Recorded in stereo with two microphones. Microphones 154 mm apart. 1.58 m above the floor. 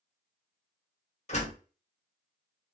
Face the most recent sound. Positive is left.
turn(degrees=45)  # may be behind; listen again after turning